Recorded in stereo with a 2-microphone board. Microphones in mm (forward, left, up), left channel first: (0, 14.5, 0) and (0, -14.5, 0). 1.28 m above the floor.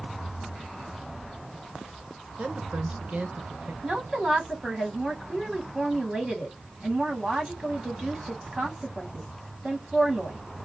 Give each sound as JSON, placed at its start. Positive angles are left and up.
{"t": 2.4, "sound": "a woman speaking", "side_deg": -55, "distance_m": 1.2}
{"t": 3.8, "sound": "a woman speaking", "side_deg": -25, "distance_m": 2.5}